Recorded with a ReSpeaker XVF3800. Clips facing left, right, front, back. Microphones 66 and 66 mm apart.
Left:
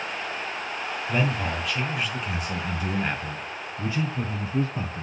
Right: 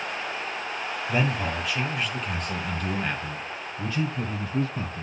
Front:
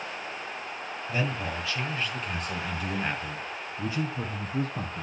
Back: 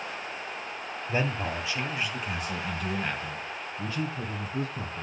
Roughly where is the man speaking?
Behind.